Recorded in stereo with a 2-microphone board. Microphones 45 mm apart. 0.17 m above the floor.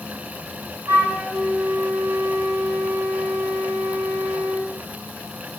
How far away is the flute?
About 8 m.